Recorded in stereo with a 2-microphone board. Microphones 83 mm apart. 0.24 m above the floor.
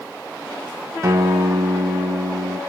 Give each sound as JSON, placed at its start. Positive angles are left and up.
{"t": 1.0, "sound": "a guitar", "side_deg": -40, "distance_m": 1.0}